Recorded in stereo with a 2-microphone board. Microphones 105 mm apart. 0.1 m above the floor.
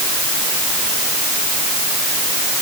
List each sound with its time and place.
Only background noise.